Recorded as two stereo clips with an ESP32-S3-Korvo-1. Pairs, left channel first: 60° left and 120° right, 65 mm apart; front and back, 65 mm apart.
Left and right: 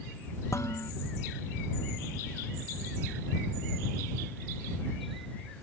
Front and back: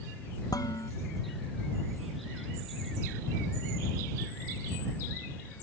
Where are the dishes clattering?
20° left.